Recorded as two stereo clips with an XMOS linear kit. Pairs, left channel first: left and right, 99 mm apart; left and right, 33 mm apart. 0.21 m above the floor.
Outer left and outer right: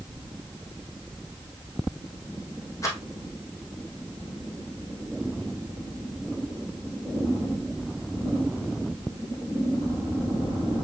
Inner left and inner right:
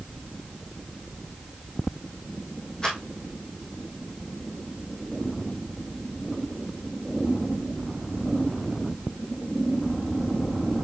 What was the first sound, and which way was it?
A rattle, 30° left (ahead or behind).